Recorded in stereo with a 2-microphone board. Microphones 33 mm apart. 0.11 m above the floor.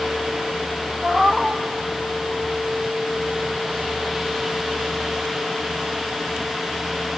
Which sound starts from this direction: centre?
A cat meowing, at 1.0 s.